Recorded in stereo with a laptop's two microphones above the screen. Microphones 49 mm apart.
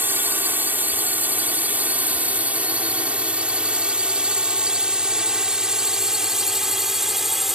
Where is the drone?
45° right (ahead or behind); by 7.6 s 5° right (ahead or behind).